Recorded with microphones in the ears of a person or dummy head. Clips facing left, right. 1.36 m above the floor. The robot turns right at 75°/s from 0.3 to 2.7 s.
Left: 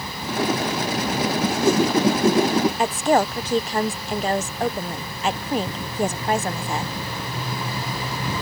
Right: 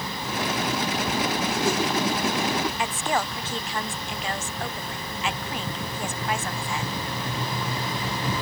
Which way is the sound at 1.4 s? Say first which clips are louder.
Left 6 dB; 75° left.